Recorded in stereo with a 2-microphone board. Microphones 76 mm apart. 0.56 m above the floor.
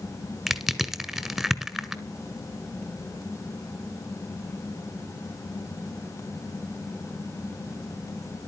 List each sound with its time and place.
0.5 s crushing: 5° right (ahead or behind), 1.4 m